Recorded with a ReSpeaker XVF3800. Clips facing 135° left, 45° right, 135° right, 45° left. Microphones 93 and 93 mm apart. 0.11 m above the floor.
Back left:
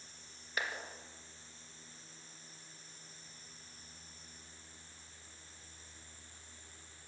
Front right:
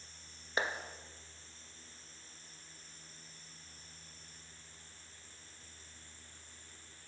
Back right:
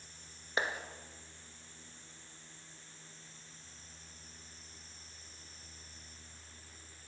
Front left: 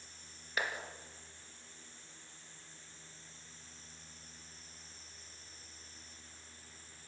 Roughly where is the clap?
Right.